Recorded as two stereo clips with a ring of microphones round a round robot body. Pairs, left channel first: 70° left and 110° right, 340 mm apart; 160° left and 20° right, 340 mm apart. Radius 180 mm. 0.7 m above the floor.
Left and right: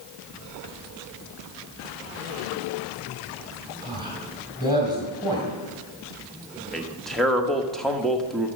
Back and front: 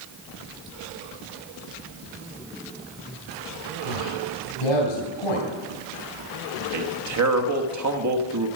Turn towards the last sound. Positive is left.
turn(degrees=-20)